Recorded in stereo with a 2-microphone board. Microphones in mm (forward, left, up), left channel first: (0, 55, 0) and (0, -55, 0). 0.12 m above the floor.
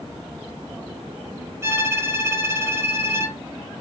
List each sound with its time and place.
1.6 s a violin: 25° right (ahead or behind), 1.2 m